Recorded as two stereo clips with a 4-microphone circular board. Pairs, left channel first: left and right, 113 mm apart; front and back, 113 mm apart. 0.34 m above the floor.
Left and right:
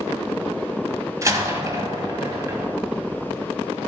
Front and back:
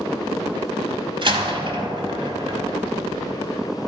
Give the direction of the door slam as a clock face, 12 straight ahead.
5 o'clock.